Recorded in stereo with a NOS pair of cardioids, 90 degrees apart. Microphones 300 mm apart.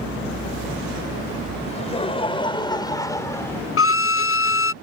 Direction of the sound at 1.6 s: 20° left.